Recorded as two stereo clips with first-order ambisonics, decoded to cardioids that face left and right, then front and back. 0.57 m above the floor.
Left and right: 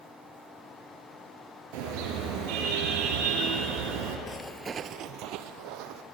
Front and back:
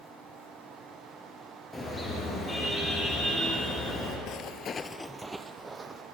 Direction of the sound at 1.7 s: 75° right.